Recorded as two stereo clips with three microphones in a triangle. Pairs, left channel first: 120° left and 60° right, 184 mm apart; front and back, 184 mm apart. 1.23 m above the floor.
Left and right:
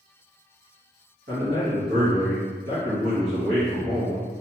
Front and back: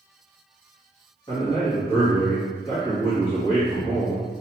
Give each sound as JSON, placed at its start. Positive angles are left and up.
{"t": 1.3, "sound": "a man speaking", "azimuth_deg": -60, "distance_m": 1.8}